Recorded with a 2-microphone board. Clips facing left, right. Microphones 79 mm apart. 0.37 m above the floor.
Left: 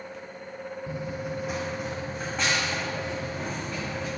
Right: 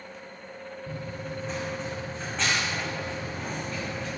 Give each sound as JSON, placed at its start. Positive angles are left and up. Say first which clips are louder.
{"t": 0.9, "sound": "running footsteps", "louder": "left 3 dB", "side_deg": 15, "distance_m": 0.8}